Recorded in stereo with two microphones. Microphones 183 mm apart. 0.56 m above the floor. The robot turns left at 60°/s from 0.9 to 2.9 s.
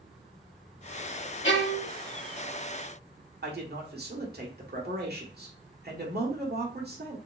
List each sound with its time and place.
1.4 s a violin: 75° left (ahead or behind), 1.0 m
3.4 s a man speaking: 55° right (ahead or behind), 1.5 m